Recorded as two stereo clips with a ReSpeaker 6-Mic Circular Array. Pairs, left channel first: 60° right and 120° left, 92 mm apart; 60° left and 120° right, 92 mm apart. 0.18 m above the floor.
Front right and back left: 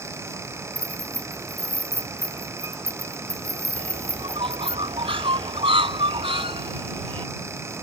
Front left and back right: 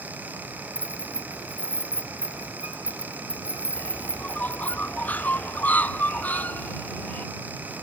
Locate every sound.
0.8 s keys jangling: 5° right
3.8 s a bird: 135° left